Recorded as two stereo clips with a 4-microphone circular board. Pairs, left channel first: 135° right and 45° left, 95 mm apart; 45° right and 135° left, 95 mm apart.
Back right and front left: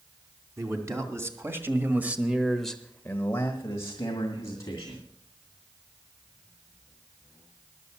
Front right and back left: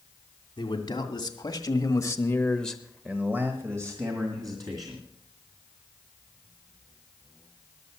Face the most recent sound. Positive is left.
turn(degrees=180)